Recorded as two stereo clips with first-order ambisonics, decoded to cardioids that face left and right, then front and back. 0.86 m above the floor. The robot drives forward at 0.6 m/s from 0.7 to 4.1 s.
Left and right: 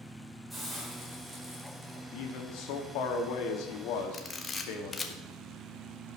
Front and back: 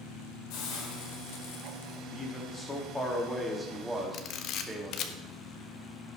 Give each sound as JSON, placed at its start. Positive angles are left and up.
{"t": 0.5, "sound": "a hiss", "azimuth_deg": 0, "distance_m": 2.5}
{"t": 2.1, "sound": "a man speaking", "azimuth_deg": 65, "distance_m": 2.5}
{"t": 4.1, "sound": "a camera shutter", "azimuth_deg": 20, "distance_m": 1.0}